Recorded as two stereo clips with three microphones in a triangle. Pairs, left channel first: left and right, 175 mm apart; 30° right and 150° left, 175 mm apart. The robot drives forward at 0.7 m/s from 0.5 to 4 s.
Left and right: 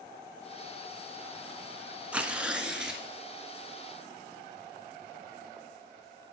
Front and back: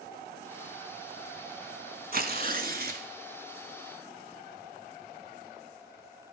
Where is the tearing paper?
175° right, 0.8 m.